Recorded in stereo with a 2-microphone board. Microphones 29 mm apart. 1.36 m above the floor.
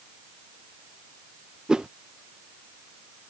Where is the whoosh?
25° right (ahead or behind).